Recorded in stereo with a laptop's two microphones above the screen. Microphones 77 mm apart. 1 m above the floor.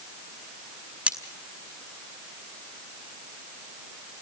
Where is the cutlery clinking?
20° right (ahead or behind), 1.7 m.